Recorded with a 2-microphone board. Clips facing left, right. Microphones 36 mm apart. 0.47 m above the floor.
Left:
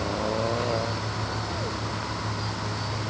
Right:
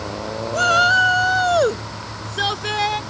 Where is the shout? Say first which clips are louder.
Right 13 dB; 80° right; by 3.0 s 85° right.